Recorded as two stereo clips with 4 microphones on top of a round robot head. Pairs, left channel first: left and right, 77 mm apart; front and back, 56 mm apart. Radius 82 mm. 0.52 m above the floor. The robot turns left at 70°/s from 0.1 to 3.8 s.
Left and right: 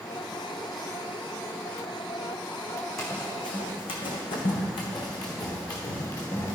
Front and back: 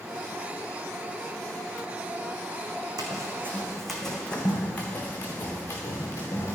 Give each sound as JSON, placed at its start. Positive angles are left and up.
{"t": 3.0, "sound": "running footsteps", "azimuth_deg": 180, "distance_m": 1.7}